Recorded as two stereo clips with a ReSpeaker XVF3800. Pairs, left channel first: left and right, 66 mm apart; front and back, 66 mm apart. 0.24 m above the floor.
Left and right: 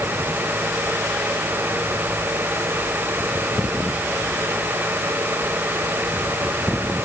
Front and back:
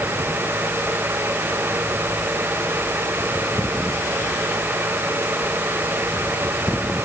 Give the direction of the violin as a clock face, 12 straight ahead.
No violin in this recording.